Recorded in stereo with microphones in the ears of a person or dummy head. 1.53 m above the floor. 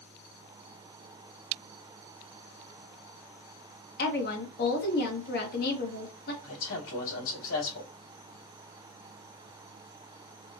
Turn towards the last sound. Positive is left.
turn(degrees=75)  # may be behind; listen again after turning